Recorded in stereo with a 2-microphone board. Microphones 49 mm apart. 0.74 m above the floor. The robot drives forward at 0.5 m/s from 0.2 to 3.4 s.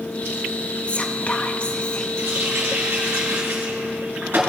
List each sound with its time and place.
0.9 s whispering: 25° left (ahead or behind), 0.5 m; by 2.1 s 20° left (ahead or behind), 0.6 m
2.2 s a running tap: 55° right (ahead or behind), 4 m; by 4.4 s 50° right (ahead or behind), 4.5 m